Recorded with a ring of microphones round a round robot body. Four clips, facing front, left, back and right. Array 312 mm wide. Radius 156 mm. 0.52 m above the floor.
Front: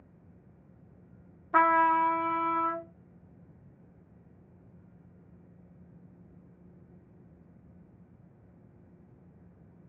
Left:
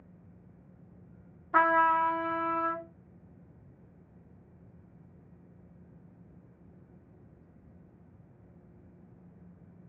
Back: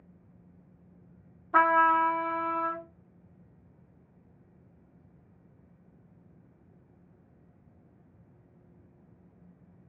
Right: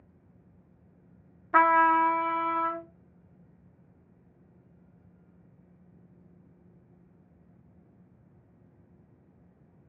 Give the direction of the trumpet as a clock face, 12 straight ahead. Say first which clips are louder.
Right 3 dB, back 1 dB; 3 o'clock.